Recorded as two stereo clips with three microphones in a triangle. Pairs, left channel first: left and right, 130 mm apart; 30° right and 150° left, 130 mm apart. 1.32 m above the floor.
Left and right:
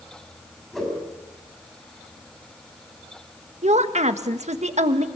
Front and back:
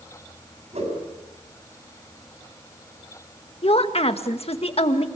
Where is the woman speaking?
65° right, 1.7 m.